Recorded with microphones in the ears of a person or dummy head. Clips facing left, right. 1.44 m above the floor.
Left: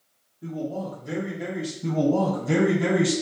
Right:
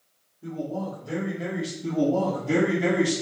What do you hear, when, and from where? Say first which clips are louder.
0.4 s a man speaking: left 1 dB; 65° left (ahead or behind), 0.9 m; by 1.7 s 25° right (ahead or behind), 1.0 m
1.8 s a man speaking: left 1 dB; 75° left (ahead or behind), 1.1 m